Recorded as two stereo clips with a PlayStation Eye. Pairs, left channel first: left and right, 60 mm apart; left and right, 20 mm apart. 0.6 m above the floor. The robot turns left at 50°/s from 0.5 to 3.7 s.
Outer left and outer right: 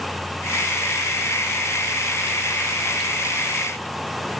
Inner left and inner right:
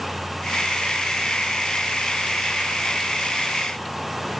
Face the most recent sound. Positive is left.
No sound to turn to.